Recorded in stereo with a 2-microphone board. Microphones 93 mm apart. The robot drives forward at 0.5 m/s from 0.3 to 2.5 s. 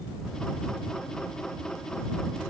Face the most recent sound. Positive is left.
No sound to turn to.